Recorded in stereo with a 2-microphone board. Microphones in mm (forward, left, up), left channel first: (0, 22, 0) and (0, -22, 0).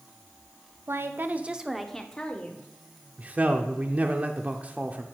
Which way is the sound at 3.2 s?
30° right (ahead or behind).